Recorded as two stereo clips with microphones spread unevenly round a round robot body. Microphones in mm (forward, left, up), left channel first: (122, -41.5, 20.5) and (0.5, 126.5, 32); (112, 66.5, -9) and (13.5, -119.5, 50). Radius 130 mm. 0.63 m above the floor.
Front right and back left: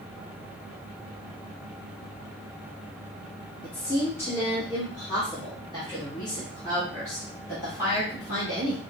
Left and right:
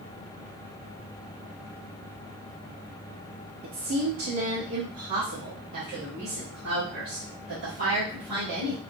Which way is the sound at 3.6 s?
135° right.